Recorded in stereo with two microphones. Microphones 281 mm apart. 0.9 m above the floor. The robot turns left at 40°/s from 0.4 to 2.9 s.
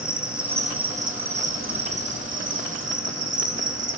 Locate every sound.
0.0 s an insect: 5° right, 2.5 m; by 4.0 s 105° right, 2.5 m